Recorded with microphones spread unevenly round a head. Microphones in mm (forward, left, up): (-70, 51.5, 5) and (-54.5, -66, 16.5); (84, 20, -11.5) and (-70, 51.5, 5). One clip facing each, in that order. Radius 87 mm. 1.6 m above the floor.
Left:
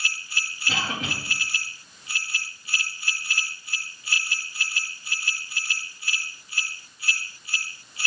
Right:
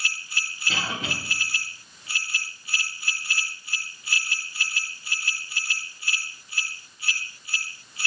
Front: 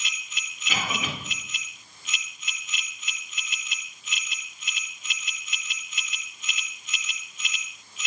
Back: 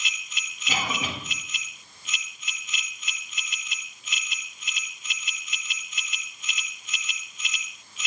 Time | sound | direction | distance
0.7 | a cough | 110° left | 3.5 m